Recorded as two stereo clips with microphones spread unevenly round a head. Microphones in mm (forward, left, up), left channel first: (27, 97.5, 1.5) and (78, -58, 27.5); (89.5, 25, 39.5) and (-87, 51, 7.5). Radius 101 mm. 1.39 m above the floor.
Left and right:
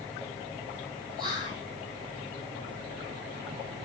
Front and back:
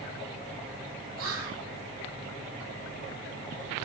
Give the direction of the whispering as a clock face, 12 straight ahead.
6 o'clock.